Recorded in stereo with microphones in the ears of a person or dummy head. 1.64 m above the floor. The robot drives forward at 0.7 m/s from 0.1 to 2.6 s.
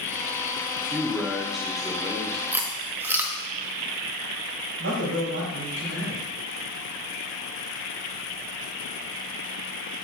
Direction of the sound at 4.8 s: 80° right.